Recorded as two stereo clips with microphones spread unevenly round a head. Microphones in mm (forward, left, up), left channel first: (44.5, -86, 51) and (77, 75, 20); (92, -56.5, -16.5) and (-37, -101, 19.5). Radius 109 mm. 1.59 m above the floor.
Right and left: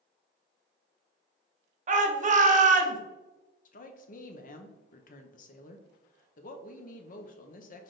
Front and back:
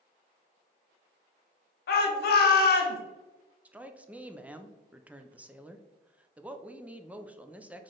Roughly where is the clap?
No clap in this recording.